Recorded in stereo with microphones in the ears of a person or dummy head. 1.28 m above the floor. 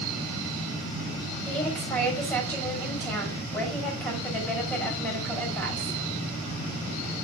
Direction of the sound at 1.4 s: 5° left (ahead or behind).